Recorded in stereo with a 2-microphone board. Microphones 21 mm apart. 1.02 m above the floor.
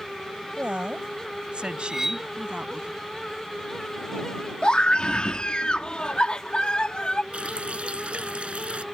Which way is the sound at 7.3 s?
65° right (ahead or behind).